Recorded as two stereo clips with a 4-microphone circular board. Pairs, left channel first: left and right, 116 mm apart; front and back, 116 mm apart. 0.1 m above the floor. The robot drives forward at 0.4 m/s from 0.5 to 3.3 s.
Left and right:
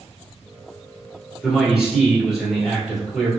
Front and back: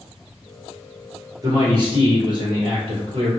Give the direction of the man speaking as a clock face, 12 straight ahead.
6 o'clock.